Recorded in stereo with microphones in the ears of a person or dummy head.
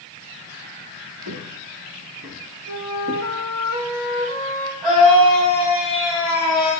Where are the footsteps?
55° right (ahead or behind), 4.5 m; by 3.2 s 65° right (ahead or behind), 3.5 m.